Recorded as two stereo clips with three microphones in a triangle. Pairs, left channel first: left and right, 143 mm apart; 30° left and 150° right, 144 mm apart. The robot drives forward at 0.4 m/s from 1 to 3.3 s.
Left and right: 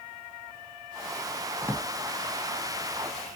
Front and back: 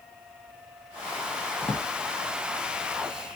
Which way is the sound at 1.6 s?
30° right.